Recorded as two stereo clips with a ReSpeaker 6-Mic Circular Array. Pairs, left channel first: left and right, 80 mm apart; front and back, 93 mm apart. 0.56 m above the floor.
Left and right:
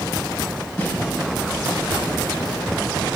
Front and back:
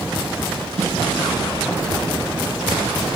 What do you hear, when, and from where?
0.8 s a snare drum: 160° left, 6.5 m